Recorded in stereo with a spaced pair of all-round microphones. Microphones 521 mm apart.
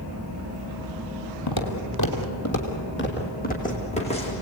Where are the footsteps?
45° left (ahead or behind), 2.5 m; by 4.3 s 10° left (ahead or behind), 5 m.